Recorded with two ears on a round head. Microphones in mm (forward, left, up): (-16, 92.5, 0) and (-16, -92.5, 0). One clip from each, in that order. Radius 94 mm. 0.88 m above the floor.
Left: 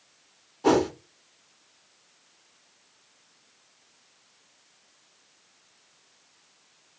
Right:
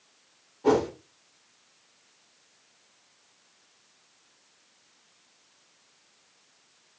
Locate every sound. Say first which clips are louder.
0.6 s a whoosh: left 1 dB; 45° left (ahead or behind), 1.7 m